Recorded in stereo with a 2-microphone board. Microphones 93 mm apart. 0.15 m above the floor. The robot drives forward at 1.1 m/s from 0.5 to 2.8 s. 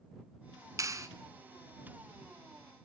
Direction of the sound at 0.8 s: 35° right (ahead or behind).